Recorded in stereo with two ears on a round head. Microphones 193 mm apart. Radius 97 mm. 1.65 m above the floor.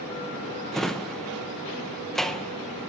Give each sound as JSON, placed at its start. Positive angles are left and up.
{"t": 0.7, "sound": "a drawer", "side_deg": 0, "distance_m": 0.8}